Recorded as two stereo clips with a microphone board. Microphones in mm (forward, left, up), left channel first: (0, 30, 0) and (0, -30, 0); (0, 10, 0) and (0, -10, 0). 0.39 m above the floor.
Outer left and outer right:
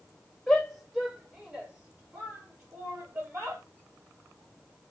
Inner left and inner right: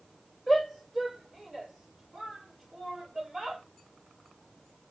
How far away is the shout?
About 1.3 m.